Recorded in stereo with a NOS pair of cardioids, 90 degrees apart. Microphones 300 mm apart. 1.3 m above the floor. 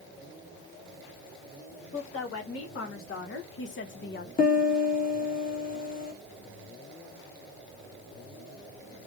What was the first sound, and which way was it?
A woman speaking, 50° left.